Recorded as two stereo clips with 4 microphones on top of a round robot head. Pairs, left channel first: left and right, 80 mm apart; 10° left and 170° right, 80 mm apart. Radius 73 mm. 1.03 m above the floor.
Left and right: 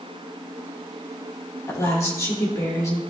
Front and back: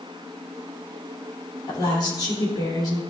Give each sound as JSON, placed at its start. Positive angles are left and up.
{"t": 1.7, "sound": "a woman speaking", "azimuth_deg": 40, "distance_m": 3.0}